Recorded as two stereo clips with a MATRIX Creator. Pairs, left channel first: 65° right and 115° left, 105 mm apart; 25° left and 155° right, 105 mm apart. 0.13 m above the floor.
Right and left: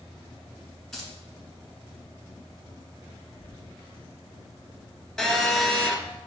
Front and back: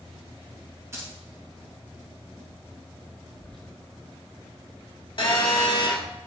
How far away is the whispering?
About 1.3 m.